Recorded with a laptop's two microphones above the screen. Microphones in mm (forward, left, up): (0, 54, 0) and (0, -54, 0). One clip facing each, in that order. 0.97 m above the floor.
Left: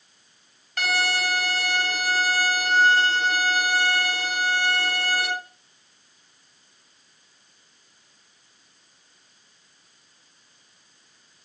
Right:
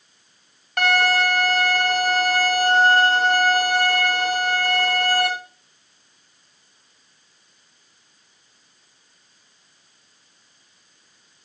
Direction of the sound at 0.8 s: 65° right (ahead or behind).